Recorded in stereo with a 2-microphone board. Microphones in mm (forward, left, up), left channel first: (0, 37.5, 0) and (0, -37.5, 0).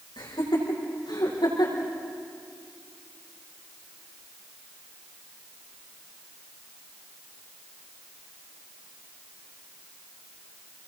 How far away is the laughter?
About 8 m.